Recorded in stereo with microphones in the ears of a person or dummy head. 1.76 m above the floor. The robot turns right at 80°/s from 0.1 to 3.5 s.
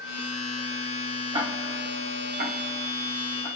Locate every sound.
1.3 s ticking: 35° right (ahead or behind), 1.2 m; by 3.5 s 25° left (ahead or behind), 1.2 m